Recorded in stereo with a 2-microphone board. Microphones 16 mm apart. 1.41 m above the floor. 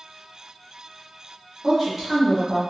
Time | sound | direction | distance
1.6 | a woman speaking | 5° right (ahead or behind) | 1.3 m